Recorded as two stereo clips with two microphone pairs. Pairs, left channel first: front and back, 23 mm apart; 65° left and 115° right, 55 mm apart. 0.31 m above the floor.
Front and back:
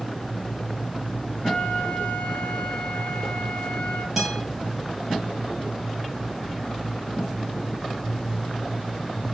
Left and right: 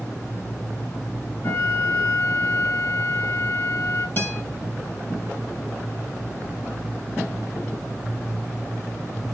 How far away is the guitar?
About 1.0 m.